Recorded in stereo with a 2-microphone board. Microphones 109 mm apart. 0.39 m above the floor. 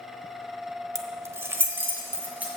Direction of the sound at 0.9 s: 30° right (ahead or behind).